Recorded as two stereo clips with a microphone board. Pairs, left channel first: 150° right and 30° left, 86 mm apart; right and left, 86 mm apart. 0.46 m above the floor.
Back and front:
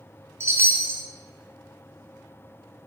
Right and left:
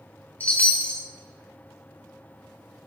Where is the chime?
20° right, 0.9 m.